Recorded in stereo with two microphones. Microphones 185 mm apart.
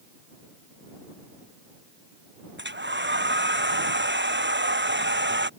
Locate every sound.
2.6 s a hair dryer: 80° right